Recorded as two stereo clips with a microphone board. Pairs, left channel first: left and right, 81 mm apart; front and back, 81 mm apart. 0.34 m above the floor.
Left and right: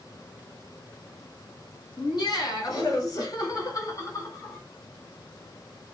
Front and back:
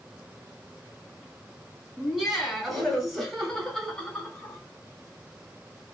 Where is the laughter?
95° left, 2.5 m; by 4.6 s 70° left, 1.6 m.